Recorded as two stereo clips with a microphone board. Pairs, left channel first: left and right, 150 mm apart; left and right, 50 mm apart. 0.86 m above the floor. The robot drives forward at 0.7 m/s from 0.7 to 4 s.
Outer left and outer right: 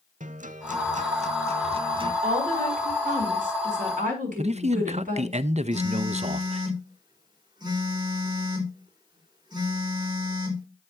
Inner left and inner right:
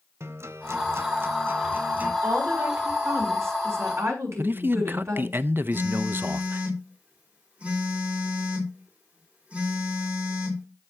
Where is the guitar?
55° right (ahead or behind), 1.0 m; by 2.1 s 35° right (ahead or behind), 1.5 m.